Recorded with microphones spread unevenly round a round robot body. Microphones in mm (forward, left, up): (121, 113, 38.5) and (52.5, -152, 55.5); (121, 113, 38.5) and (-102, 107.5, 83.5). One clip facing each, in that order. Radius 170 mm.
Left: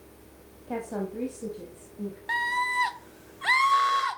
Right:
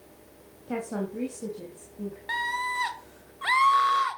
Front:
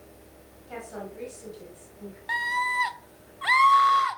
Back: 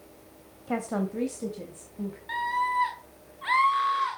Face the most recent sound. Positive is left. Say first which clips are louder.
# left 2 dB, back 2 dB
turn(degrees=-20)